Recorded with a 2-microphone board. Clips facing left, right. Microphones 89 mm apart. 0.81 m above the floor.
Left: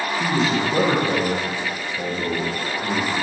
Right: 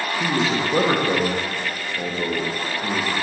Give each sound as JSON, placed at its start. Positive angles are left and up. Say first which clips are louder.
{"t": 0.2, "sound": "a man speaking", "louder": "left 1 dB", "side_deg": -20, "distance_m": 0.9}